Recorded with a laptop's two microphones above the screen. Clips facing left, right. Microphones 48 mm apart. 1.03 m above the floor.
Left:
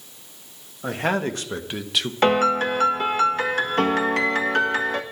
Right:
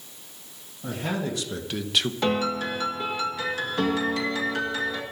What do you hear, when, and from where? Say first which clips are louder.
0.8 s a man speaking: left 6 dB; 60° left (ahead or behind), 1.8 m; by 2.1 s 10° right (ahead or behind), 1.0 m
2.2 s a piano: left 11 dB; 50° left (ahead or behind), 1.5 m